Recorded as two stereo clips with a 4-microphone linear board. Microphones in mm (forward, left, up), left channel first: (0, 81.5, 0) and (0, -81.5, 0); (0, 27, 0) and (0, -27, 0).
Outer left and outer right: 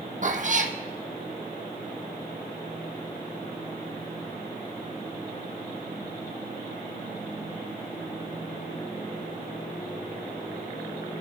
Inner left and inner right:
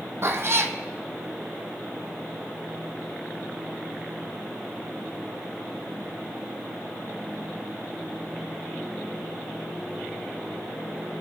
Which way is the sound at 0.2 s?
55° right (ahead or behind).